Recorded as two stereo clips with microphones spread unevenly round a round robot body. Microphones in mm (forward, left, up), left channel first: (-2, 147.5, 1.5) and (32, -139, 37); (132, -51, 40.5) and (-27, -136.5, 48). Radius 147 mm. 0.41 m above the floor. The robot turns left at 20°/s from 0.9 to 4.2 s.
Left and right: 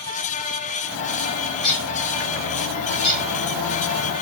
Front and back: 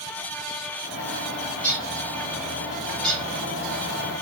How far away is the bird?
About 1.9 m.